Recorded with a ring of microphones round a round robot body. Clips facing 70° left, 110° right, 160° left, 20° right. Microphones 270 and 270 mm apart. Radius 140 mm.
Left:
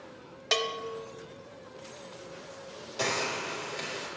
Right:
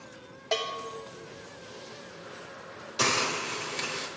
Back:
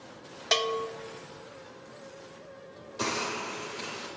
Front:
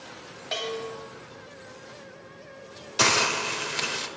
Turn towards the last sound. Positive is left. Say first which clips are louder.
# right 2 dB, front 5 dB
turn(degrees=-40)